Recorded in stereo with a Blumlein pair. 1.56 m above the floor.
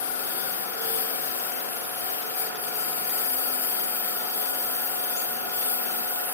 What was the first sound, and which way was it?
A lawn mower, 65° left.